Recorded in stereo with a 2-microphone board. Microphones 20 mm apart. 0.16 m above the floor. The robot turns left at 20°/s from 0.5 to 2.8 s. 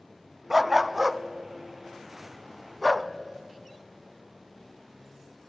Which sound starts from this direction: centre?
A dog barking, at 0.5 s.